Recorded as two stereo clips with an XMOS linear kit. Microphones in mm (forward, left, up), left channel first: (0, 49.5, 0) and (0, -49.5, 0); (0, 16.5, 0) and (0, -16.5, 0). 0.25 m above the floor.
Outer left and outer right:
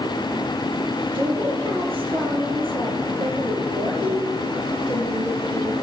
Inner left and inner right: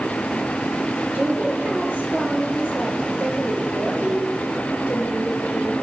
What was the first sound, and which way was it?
A woman speaking, 55° right (ahead or behind).